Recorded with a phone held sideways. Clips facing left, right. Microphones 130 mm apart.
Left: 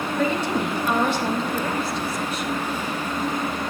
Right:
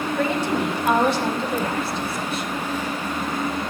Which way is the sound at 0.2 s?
80° right.